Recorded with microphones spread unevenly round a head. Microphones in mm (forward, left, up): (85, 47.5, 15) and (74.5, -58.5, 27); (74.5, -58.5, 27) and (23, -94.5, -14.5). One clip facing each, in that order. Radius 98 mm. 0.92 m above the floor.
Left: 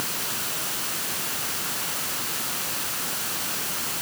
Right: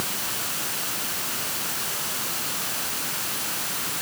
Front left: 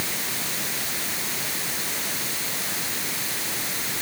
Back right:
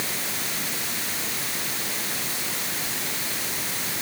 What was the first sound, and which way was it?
Only background noise.